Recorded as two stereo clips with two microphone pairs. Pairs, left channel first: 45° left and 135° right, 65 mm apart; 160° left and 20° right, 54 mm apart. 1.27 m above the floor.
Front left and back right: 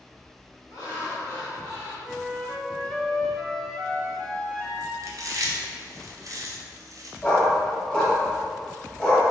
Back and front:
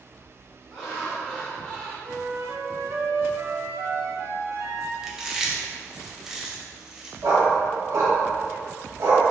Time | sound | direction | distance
0.7 | laughter | 80° left | 1.8 m
2.0 | a flute | 35° right | 0.5 m
5.0 | chewing | 100° right | 0.6 m
7.2 | a dog barking | 25° right | 1.8 m